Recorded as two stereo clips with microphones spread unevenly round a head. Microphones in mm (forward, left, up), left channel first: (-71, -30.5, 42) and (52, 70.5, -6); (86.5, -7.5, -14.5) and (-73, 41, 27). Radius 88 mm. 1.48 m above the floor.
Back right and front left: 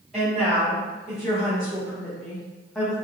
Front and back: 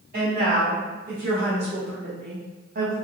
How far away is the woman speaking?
About 1.9 m.